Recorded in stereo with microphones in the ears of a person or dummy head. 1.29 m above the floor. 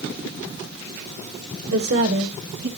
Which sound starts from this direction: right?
A woman speaking, at 1.7 s.